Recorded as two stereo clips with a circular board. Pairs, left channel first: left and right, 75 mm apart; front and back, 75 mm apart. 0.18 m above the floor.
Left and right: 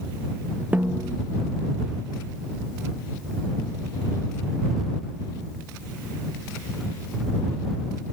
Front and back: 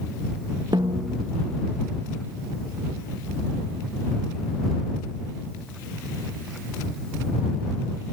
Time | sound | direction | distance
0.7 | a snare drum | 160° right | ?